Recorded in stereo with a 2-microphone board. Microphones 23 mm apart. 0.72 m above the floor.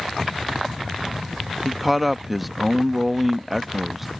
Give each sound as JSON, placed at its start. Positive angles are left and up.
{"t": 1.6, "sound": "a man speaking", "side_deg": 0}